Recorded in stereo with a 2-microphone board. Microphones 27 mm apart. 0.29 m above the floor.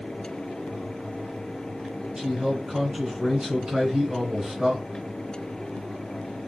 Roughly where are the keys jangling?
I don't hear keys jangling.